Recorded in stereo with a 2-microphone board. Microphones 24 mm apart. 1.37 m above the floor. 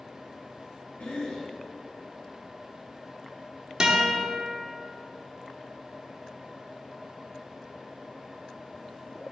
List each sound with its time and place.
1.0 s a cough: 85° left, 1.2 m
3.8 s a guitar: 30° right (ahead or behind), 1.1 m